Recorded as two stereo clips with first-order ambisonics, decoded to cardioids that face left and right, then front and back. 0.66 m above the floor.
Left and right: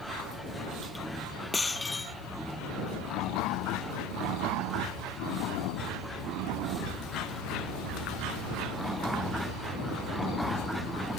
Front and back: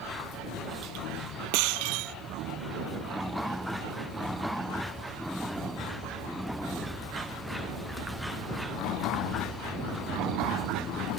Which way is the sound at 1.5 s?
170° left.